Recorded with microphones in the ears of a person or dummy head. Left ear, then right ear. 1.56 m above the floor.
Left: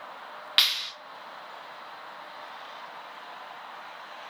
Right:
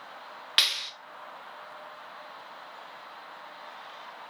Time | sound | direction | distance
0.6 | a clap | 5° right (ahead or behind) | 1.4 m